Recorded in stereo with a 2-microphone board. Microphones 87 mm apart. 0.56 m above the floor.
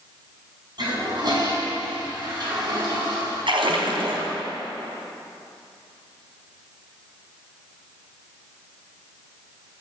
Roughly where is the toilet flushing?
Right.